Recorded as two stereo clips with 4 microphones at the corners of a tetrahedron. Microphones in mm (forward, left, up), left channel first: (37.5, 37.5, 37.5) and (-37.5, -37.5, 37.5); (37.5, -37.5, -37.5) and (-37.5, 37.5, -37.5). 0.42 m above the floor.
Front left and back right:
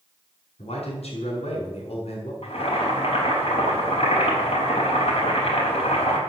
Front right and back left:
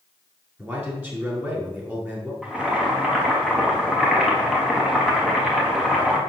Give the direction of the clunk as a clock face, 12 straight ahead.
I don't hear a clunk.